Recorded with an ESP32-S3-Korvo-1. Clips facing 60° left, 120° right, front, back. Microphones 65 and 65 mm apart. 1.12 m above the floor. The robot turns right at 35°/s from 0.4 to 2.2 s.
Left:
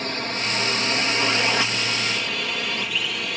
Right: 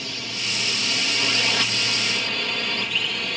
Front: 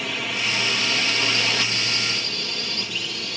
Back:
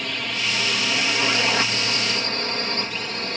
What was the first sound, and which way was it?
A drone, 85° left.